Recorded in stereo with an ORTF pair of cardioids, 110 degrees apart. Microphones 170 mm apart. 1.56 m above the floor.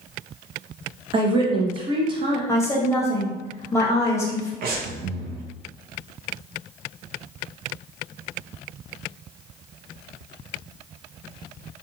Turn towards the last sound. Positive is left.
turn(degrees=-60)